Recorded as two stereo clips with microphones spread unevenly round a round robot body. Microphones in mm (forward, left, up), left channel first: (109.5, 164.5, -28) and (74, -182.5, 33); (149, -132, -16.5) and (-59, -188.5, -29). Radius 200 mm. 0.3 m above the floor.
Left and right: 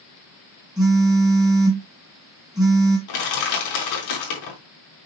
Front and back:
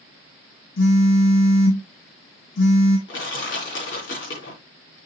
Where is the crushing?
70° left, 3.5 m.